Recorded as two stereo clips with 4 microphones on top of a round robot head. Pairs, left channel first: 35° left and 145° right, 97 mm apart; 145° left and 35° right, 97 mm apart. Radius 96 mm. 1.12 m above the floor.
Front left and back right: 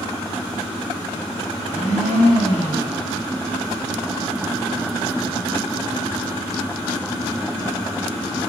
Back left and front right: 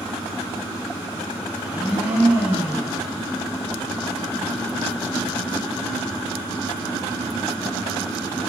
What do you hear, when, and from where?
1.6 s a blender: 40° left, 2.5 m